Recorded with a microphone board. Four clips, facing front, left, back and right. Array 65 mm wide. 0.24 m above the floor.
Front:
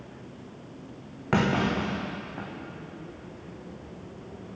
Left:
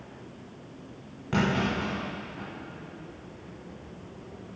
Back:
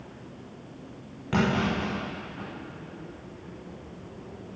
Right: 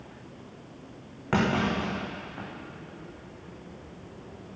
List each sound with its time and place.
1.3 s a clunk: 40° right, 3.5 m